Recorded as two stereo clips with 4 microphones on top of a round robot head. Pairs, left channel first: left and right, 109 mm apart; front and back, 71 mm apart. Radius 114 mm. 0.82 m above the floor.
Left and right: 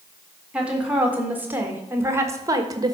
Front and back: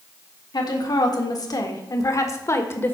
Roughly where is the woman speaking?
Ahead.